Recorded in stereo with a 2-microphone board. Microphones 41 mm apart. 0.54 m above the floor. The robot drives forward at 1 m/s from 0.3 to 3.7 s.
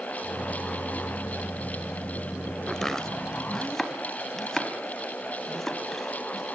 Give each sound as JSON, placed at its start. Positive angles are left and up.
{"t": 2.7, "sound": "chopping", "side_deg": 10, "distance_m": 1.2}